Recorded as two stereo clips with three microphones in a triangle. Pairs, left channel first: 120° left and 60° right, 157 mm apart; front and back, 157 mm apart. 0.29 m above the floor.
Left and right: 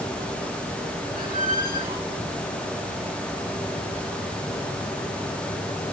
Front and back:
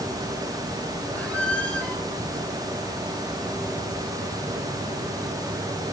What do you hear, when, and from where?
1.1 s a squeak: 80° right, 3 m